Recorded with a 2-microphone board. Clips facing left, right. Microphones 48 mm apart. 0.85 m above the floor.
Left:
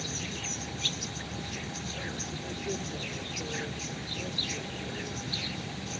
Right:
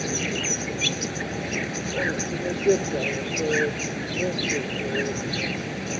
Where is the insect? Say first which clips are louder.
Right 11 dB; 65° right (ahead or behind).